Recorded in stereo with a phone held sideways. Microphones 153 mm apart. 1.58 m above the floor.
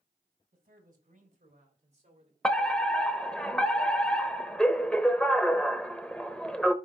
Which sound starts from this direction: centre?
A fire alarm, at 2.4 s.